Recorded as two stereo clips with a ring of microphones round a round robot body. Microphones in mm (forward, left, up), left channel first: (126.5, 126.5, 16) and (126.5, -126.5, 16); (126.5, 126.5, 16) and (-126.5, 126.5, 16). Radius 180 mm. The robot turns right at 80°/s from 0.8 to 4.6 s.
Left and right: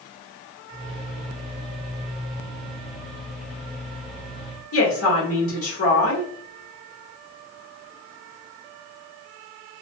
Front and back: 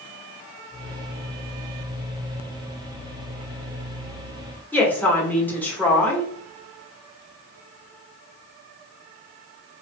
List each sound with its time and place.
4.7 s a woman speaking: 85° left, 1.4 m